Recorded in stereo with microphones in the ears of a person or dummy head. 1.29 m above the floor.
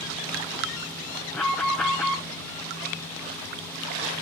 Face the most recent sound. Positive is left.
turn(degrees=5)  # may be behind; listen again after turning